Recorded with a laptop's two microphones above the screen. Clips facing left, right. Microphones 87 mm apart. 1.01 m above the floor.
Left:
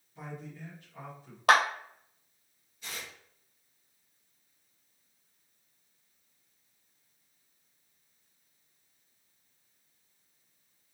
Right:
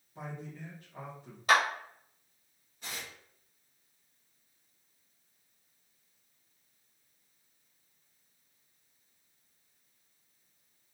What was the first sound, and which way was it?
A man speaking, 45° right (ahead or behind).